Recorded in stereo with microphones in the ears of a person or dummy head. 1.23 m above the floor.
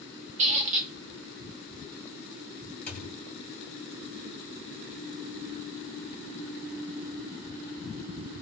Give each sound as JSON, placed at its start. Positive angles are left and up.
{"t": 0.4, "sound": "a squeak", "side_deg": -40, "distance_m": 1.1}
{"t": 2.9, "sound": "a thud", "side_deg": 5, "distance_m": 2.0}